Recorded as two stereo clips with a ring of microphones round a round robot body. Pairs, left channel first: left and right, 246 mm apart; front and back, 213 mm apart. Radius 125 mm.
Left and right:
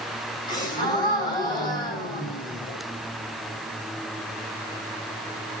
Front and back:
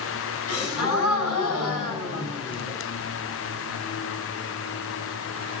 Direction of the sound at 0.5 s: 15° left.